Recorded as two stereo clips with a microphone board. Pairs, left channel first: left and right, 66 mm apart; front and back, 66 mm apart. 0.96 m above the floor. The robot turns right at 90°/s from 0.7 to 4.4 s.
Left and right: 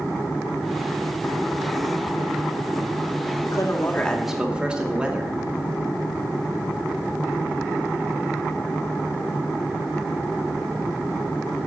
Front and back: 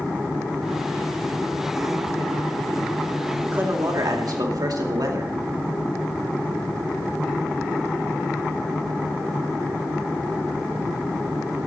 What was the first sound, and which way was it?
A man speaking, 110° left.